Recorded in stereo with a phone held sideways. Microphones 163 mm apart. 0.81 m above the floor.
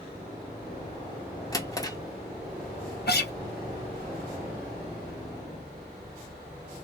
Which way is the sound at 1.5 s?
20° left (ahead or behind).